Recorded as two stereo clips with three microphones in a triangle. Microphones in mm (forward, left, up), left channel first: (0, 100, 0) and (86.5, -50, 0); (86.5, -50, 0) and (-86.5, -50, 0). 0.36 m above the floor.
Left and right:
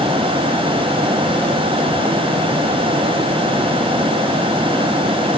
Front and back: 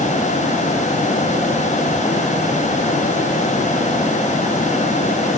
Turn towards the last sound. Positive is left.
No sound to turn to.